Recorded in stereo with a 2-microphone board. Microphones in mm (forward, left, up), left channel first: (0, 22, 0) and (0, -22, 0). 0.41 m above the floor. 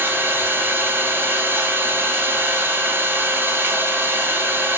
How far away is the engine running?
About 1.7 m.